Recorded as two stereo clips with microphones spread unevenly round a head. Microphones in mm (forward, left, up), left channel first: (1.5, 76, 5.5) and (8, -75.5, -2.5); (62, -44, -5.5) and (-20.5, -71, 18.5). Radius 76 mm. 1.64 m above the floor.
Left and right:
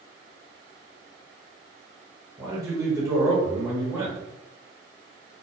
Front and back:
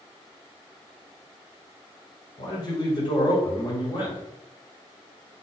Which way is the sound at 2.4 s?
15° right.